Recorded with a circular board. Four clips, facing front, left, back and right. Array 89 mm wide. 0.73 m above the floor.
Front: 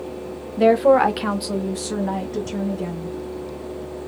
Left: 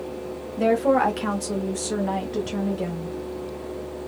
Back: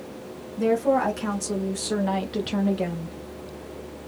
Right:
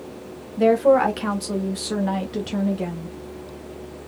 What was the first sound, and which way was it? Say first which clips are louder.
A woman speaking: right 4 dB, front 7 dB; 5° left.